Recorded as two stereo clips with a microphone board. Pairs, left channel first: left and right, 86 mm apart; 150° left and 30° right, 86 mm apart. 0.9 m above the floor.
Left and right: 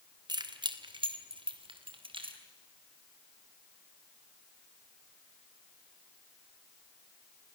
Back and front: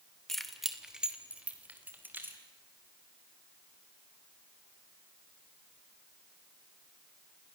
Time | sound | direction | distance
0.3 | keys jangling | 125° right | 2 m